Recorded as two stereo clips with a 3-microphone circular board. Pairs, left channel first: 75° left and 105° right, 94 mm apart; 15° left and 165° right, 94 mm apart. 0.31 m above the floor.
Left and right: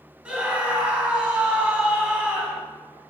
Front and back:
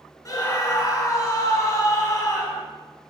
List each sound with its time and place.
0.2 s a scream: 25° right, 2 m